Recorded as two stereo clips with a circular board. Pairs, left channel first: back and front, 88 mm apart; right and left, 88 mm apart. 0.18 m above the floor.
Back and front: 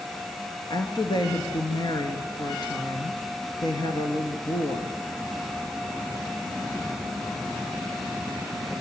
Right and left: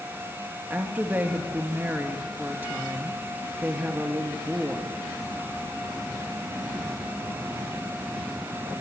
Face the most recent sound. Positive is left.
turn(degrees=155)